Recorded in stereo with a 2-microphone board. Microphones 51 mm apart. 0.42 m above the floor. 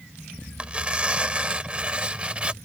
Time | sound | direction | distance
0.6 | tearing paper | 25° right (ahead or behind) | ?